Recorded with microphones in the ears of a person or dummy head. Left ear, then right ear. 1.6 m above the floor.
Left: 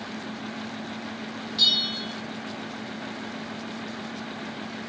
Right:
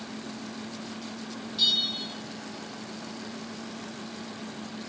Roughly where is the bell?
Centre.